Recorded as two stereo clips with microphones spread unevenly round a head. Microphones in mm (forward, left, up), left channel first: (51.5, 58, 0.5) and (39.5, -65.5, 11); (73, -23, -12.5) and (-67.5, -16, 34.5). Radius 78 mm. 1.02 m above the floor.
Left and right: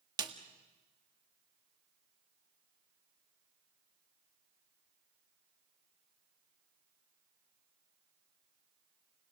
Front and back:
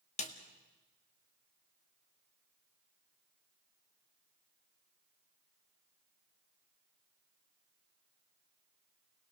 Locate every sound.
0.2 s a snare drum: 35° right, 1.8 m